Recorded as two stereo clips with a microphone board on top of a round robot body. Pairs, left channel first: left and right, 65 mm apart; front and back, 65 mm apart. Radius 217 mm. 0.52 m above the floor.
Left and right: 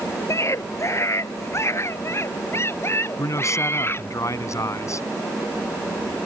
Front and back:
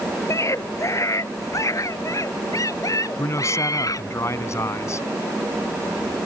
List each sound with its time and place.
0.3 s a scream: 45° left; by 4.1 s 35° left
3.2 s a man speaking: 50° left